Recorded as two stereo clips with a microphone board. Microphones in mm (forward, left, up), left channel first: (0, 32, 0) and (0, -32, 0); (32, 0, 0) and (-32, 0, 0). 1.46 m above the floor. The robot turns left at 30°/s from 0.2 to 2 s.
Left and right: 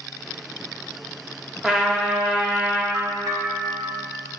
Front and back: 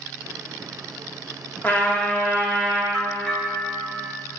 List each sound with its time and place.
1.6 s a trumpet: 10° right, 1.1 m; by 2.8 s 20° right, 1.1 m
2.9 s a bell: 80° right, 1.1 m